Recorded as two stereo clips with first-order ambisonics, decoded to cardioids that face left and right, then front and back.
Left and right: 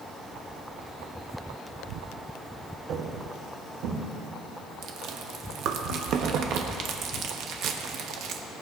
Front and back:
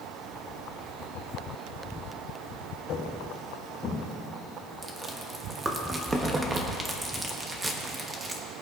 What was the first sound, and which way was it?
Footsteps, 50° right.